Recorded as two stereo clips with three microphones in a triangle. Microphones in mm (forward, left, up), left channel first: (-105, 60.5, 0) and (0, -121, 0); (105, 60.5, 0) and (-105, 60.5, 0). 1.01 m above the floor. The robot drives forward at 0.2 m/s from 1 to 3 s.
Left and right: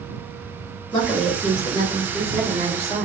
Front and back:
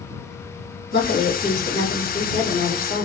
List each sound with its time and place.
0.9 s a woman speaking: 155° right, 1.5 m; by 3.0 s 160° right, 1.9 m